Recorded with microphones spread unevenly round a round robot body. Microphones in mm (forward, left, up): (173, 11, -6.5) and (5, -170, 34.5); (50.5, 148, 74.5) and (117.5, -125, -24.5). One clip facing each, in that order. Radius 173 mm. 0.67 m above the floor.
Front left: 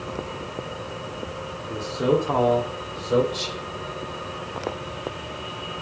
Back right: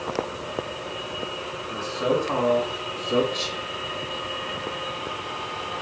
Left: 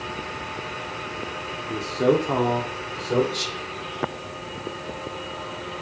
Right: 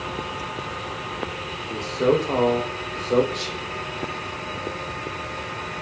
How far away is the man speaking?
About 1.3 m.